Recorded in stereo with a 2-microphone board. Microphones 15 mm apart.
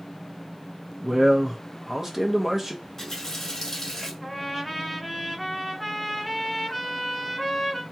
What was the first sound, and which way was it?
A man speaking, 30° right (ahead or behind).